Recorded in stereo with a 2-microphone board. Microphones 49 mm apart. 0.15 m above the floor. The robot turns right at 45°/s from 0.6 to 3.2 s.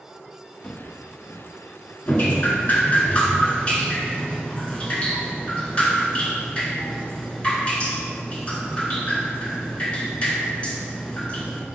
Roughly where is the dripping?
Left.